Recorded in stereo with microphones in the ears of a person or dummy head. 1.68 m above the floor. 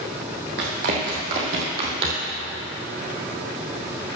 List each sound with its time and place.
0.6 s running footsteps: 55° right (ahead or behind), 3 m; by 2.3 s 35° right (ahead or behind), 2.5 m